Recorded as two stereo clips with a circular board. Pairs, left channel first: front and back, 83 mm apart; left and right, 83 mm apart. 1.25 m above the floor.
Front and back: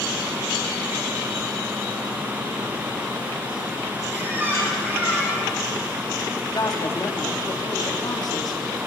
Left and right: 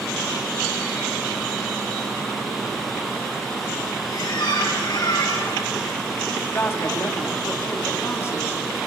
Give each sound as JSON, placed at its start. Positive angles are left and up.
{"t": 4.1, "sound": "a squeak", "azimuth_deg": 115, "distance_m": 8.5}
{"t": 6.5, "sound": "a woman speaking", "azimuth_deg": 30, "distance_m": 2.5}